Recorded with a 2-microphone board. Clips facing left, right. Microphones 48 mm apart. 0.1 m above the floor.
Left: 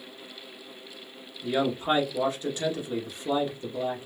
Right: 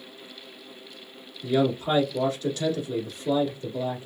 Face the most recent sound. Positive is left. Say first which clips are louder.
# right 2 dB
turn(degrees=20)  # may be behind; listen again after turning